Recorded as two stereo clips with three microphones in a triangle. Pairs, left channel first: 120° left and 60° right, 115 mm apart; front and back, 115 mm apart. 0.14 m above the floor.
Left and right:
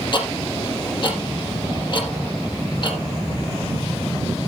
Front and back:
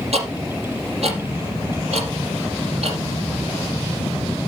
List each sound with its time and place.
0.1 s ticking: 165° left, 3.5 m